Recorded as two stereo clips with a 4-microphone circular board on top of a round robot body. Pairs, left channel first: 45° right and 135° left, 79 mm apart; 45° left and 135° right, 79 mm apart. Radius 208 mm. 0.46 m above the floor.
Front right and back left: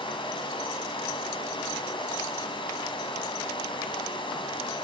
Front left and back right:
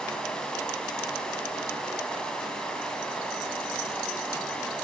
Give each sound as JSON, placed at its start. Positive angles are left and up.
{"t": 0.0, "sound": "running water", "azimuth_deg": -35, "distance_m": 1.9}